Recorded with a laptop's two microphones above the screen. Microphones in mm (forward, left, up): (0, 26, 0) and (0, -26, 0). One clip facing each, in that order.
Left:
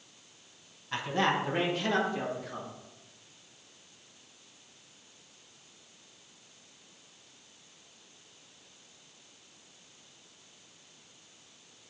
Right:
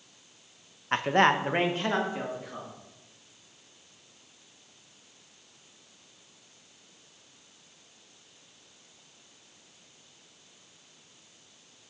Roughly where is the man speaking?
Right.